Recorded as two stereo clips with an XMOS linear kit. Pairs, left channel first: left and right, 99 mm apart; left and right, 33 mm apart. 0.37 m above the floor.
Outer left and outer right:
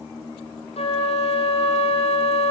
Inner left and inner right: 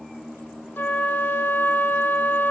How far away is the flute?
About 2.5 m.